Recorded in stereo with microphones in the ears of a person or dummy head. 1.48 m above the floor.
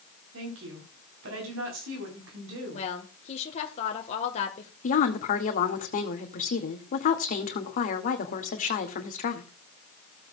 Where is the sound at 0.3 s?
75° right (ahead or behind), 4 m.